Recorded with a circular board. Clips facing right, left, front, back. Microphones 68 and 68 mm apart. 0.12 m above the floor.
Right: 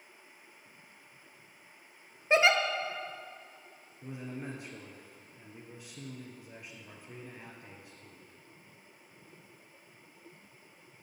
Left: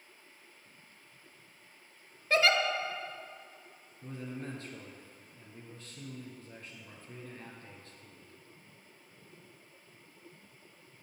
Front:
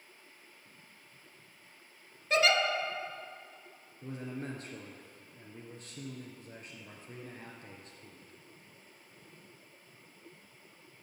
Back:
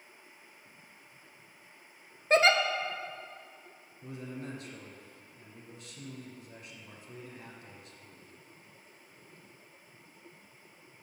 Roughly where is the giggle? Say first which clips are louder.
Right 2 dB, back 4 dB; behind right.